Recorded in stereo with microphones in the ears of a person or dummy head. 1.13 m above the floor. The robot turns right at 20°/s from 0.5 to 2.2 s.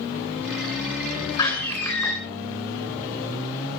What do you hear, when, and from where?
1.4 s a door slam: 15° left (ahead or behind), 9.5 m; by 2.1 s centre (ahead or behind), 9.5 m